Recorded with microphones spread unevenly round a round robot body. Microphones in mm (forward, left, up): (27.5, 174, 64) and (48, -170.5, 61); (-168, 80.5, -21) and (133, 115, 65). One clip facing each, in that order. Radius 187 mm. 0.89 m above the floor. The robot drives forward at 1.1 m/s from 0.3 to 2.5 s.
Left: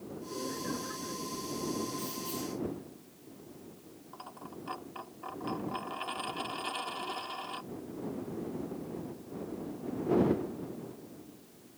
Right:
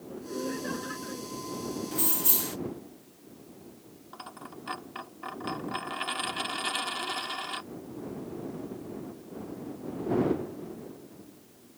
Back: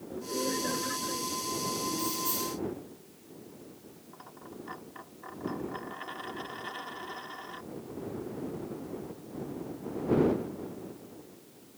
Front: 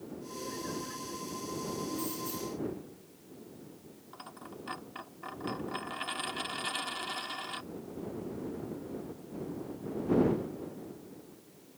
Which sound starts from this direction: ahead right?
A dropped coin, at 4.1 s.